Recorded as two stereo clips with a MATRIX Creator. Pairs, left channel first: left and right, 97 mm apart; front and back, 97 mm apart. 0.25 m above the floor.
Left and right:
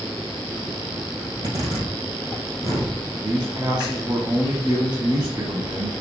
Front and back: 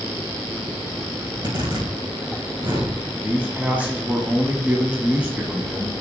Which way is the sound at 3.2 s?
110° right.